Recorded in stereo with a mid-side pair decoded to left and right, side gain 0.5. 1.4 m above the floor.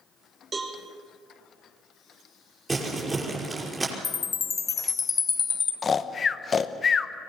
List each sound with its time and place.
0.5 s a cowbell: 35° right, 3.5 m
2.7 s crumpling: 25° right, 5.5 m
4.0 s a chime: 35° left, 1.4 m
5.8 s snoring: 35° left, 1.0 m